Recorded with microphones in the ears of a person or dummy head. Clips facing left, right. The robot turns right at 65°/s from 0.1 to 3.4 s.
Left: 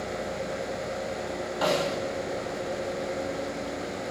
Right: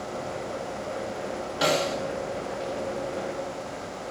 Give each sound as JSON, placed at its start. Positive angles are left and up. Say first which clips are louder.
{"t": 1.6, "sound": "a snare drum", "louder": "right 1 dB", "side_deg": -30, "distance_m": 3.0}